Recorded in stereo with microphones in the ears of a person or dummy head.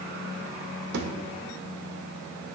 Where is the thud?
60° right (ahead or behind), 2 m.